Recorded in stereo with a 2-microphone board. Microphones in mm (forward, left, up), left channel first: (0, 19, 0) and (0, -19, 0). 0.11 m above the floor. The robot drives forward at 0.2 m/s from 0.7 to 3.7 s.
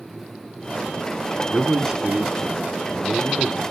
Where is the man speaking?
10° right (ahead or behind), 1.3 m.